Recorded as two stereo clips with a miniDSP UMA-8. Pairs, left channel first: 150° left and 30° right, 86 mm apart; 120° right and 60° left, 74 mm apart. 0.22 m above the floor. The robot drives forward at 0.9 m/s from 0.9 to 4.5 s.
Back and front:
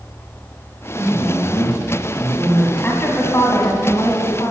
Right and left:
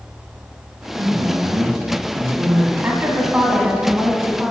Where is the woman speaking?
95° left, 1.9 m; by 4.5 s 145° left, 2.5 m.